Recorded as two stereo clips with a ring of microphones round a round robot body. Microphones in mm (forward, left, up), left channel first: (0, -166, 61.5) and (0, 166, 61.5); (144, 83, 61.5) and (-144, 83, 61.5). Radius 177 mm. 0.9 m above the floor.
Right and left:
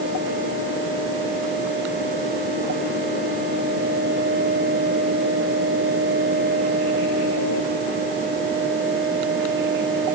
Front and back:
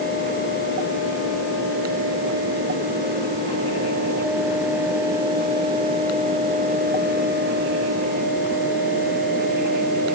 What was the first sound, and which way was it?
Only background noise.